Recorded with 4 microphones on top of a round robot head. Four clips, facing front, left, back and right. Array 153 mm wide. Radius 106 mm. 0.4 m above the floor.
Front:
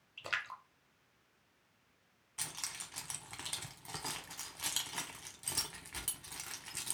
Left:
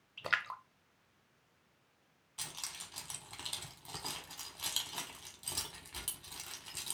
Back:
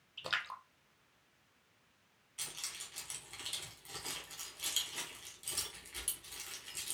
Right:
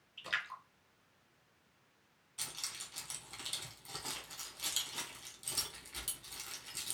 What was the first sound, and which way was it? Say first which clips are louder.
A splash: left 5 dB, back 1 dB; 105° left.